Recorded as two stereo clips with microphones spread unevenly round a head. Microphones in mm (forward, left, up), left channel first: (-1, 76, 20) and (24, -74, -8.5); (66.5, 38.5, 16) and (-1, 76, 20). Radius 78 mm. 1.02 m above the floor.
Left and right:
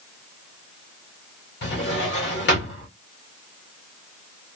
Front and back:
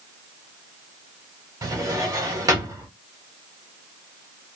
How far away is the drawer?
About 2.0 m.